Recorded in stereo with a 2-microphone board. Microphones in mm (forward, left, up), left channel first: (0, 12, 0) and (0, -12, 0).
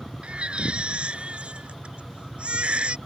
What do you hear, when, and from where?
0.2 s a baby crying: 60° right (ahead or behind)